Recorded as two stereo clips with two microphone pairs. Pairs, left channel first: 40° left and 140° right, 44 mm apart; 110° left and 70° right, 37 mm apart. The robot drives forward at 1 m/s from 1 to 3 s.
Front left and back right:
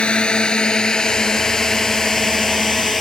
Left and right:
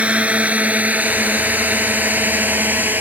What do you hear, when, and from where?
0.0 s a drone: 25° right; by 3.0 s 50° right